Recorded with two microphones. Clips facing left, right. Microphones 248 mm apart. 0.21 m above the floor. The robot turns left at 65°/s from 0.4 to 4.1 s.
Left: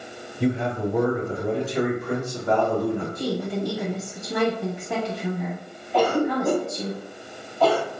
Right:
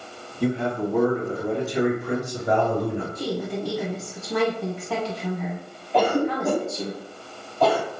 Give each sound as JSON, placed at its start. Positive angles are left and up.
{"t": 0.4, "sound": "a man speaking", "side_deg": 20, "distance_m": 1.2}
{"t": 3.1, "sound": "a woman speaking", "side_deg": 15, "distance_m": 1.0}
{"t": 5.9, "sound": "a cough", "side_deg": -20, "distance_m": 1.3}